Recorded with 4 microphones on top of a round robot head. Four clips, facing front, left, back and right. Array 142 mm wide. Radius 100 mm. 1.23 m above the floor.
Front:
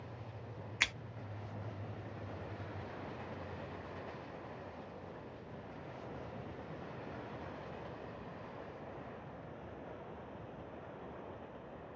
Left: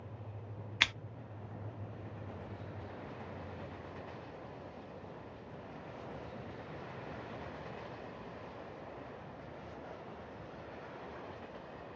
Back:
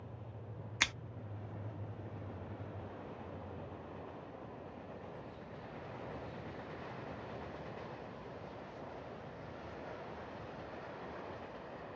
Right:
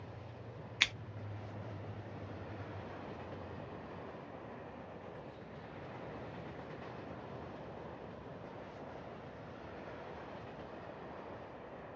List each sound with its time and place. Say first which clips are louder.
0.8 s scissors: left 3 dB, back 1 dB; 125° left, 0.6 m